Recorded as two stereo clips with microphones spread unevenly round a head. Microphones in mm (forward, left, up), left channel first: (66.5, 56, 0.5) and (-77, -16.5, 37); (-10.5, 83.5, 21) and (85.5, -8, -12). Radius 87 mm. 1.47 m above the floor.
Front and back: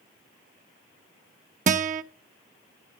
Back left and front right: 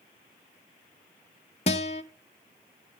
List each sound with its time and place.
1.7 s a guitar: 175° left, 0.6 m